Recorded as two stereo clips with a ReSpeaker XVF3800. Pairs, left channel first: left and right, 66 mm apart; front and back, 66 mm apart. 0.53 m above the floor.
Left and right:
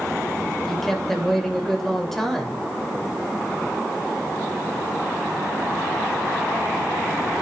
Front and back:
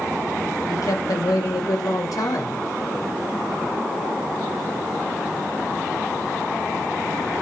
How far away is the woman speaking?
About 2.5 m.